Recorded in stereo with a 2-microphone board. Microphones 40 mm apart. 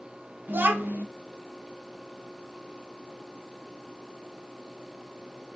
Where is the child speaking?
60° right (ahead or behind), 0.6 m.